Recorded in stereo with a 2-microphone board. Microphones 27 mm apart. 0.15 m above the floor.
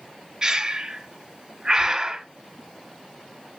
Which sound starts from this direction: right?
Breathing, at 0.4 s.